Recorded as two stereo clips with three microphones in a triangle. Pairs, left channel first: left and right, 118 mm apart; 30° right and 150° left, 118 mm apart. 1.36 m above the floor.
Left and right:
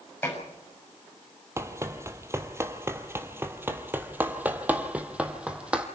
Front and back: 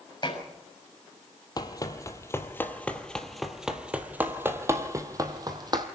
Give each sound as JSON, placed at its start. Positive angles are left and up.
{"t": 0.2, "sound": "dishes clattering", "azimuth_deg": 20, "distance_m": 6.5}
{"t": 1.6, "sound": "running footsteps", "azimuth_deg": -40, "distance_m": 1.6}